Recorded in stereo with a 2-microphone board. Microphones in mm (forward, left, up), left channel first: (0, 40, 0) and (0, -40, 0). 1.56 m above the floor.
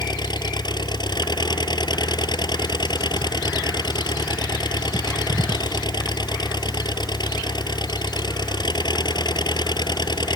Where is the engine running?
65° left (ahead or behind).